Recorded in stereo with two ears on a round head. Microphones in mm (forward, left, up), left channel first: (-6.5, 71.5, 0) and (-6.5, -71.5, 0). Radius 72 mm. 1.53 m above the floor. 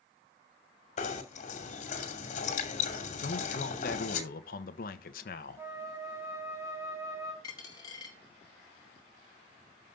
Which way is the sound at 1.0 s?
45° left (ahead or behind).